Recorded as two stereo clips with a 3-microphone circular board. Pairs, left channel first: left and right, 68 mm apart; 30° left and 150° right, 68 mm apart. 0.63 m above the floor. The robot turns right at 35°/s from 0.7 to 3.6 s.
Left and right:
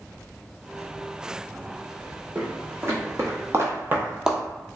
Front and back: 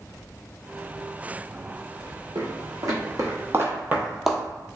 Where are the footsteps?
160° right, 1.6 m; by 4.4 s 30° right, 0.6 m.